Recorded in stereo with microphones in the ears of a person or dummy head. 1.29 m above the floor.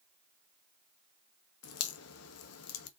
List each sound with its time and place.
1.6 s a crack: 80° left, 1.2 m